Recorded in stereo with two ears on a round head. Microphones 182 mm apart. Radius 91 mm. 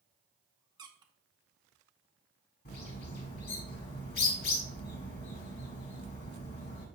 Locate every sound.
0.8 s a squeak: 20° right (ahead or behind), 0.7 m
2.6 s a bird: 50° left (ahead or behind), 2 m